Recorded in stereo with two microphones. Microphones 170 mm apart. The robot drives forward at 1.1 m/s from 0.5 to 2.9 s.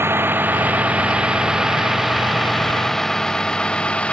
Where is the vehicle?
10° right (ahead or behind); by 4.1 s 5° left (ahead or behind).